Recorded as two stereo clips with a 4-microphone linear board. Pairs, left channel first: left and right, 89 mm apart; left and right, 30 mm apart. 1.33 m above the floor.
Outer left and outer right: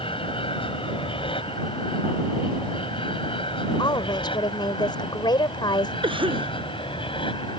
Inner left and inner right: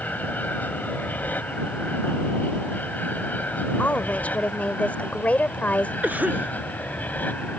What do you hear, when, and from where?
0.0 s an aircraft: 80° left; by 7.6 s 70° left (ahead or behind)
3.8 s a woman speaking: 55° left (ahead or behind)
6.0 s a cough: 70° right (ahead or behind)